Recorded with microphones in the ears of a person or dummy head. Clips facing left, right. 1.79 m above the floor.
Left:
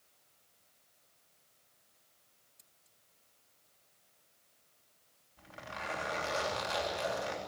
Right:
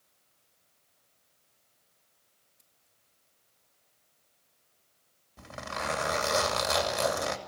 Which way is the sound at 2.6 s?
55° left (ahead or behind).